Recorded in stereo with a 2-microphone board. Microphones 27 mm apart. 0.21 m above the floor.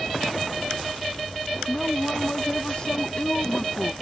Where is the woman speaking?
20° left (ahead or behind); by 3.9 s 45° left (ahead or behind).